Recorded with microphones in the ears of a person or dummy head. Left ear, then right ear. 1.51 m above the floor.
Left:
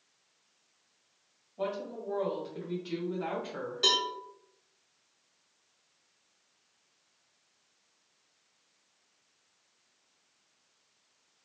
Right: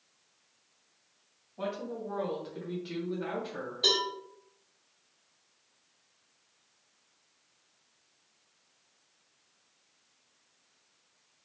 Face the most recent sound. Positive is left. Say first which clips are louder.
# even
turn(degrees=50)  # may be behind; listen again after turning